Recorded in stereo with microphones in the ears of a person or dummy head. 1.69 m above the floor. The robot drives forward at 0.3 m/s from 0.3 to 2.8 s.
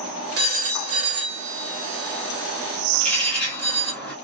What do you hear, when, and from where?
0.4 s a phone ringing: 50° right (ahead or behind), 1.2 m; by 3.9 s 60° right (ahead or behind), 1.1 m
2.9 s a bird: 10° left (ahead or behind), 0.9 m